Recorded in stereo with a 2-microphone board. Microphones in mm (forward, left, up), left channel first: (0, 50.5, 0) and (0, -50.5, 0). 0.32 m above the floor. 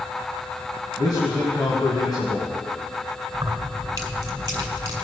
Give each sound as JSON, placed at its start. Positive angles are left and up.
{"t": 1.0, "sound": "a man speaking", "side_deg": 40, "distance_m": 2.5}
{"t": 3.3, "sound": "keys jangling", "side_deg": -40, "distance_m": 2.0}